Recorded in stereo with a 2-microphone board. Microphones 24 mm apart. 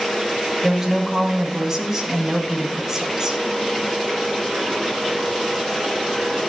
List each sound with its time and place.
0.6 s a woman speaking: 20° right (ahead or behind), 1.6 m